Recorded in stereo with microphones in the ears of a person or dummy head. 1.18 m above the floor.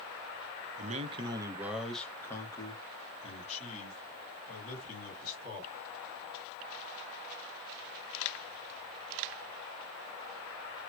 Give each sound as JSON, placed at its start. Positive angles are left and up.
{"t": 0.8, "sound": "a man speaking", "side_deg": -40, "distance_m": 0.8}